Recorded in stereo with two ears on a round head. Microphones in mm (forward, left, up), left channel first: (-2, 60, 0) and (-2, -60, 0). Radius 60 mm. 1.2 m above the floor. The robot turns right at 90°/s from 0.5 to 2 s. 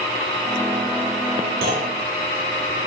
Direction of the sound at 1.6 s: 105° right.